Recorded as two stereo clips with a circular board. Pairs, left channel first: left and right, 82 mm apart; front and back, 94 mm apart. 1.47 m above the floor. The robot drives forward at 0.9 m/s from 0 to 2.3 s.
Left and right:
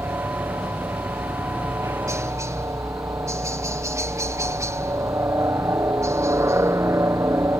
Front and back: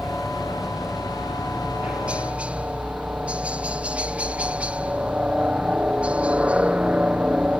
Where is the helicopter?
95° right; by 7.6 s 110° right.